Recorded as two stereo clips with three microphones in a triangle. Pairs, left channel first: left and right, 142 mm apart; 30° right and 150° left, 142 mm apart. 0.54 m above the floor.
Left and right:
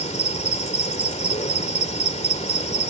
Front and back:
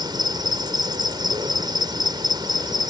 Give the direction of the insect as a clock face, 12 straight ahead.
9 o'clock.